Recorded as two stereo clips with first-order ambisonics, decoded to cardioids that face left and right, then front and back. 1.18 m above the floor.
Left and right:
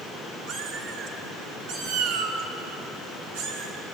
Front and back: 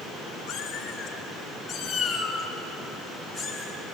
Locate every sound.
0.5 s a cat meowing: 55° right, 4.5 m; by 4.0 s 95° right, 4.5 m